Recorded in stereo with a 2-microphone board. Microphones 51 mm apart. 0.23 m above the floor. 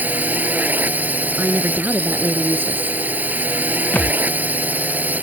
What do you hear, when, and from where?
0.0 s a drone: 35° right (ahead or behind)
1.4 s a woman speaking: 40° right (ahead or behind)
3.9 s a thud: 35° left (ahead or behind)